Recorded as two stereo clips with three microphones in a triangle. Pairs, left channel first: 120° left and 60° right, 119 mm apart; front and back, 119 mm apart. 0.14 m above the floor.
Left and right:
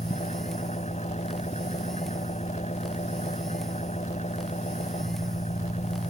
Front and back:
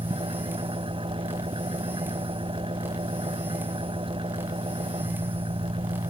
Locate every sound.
0.0 s an engine running: 140° left